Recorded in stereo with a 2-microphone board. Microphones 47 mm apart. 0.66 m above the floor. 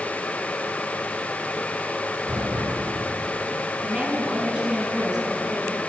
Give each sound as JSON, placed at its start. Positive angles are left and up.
{"t": 2.3, "sound": "an explosion", "side_deg": -75, "distance_m": 5.0}
{"t": 3.8, "sound": "a woman speaking", "side_deg": -20, "distance_m": 6.0}